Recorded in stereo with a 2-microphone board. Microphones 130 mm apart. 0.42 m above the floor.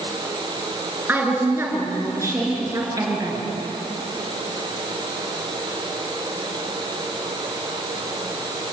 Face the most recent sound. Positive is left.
turn(degrees=-30)  # may be behind; listen again after turning